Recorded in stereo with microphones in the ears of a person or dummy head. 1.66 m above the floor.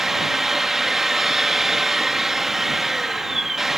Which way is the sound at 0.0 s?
5° right (ahead or behind).